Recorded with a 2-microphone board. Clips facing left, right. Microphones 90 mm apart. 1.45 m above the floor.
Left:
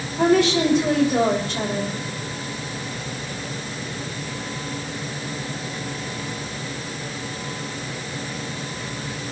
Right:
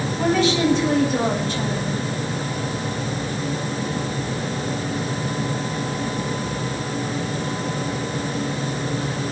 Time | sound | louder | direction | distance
0.2 | a woman speaking | left 2 dB | 85° left | 6 m